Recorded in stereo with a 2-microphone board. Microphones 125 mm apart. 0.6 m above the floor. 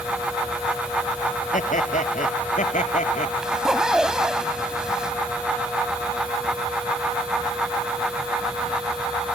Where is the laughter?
80° left; by 3.3 s 75° left (ahead or behind).